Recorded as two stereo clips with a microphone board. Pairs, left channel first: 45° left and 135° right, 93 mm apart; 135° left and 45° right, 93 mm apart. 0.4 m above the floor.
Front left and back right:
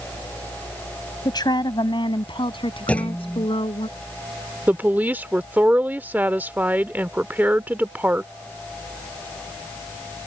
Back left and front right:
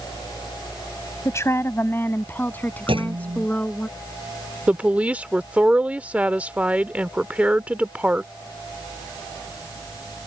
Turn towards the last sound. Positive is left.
turn(degrees=-95)